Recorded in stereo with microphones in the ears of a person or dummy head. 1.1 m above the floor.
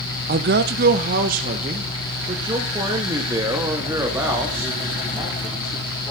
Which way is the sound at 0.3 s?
45° right (ahead or behind).